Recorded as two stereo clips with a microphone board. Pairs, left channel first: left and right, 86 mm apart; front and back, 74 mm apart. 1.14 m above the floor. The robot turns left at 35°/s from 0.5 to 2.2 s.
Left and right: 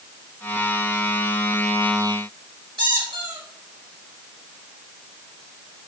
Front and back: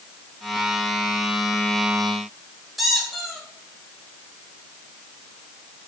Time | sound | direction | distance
2.8 | a squeak | 95° right | 2.5 m